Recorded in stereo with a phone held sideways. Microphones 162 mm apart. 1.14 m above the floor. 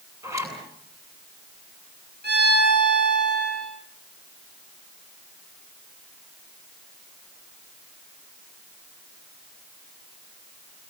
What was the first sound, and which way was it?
A zipper, 20° right (ahead or behind).